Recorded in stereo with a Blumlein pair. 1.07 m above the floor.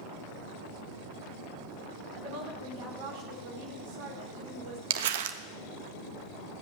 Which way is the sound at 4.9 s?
55° right.